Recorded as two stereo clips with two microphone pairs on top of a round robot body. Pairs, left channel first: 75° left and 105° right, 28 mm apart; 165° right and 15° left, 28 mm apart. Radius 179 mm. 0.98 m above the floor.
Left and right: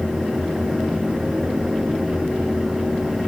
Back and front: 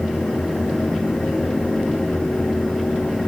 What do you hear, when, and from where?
Only background noise.